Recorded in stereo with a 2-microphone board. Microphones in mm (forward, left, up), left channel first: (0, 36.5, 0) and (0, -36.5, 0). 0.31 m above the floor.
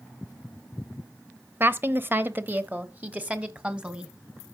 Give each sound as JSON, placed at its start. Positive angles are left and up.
{"t": 1.6, "sound": "a woman speaking", "side_deg": -30, "distance_m": 1.0}